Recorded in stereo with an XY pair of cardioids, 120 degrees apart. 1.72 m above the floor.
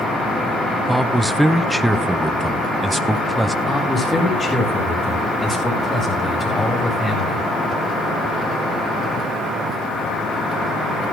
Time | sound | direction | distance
0.9 | a man speaking | 10° right | 1.1 m
3.6 | a man speaking | 20° left | 8.5 m